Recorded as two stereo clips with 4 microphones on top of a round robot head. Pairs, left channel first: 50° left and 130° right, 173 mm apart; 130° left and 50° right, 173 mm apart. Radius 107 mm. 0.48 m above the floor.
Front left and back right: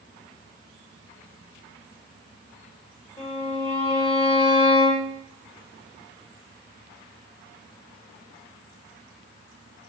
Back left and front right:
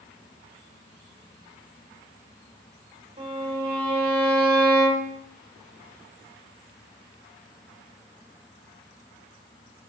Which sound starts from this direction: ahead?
A violin, at 3.2 s.